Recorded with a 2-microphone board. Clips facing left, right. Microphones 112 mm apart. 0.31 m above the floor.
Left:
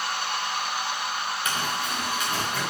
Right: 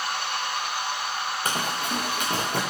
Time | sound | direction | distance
1.4 | running footsteps | 35° right (ahead or behind) | 1.9 m